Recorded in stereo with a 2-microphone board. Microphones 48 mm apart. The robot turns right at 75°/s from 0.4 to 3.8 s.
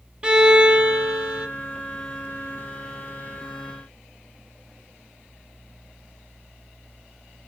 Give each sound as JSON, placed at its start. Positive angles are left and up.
{"t": 0.2, "sound": "a violin", "side_deg": -20, "distance_m": 1.3}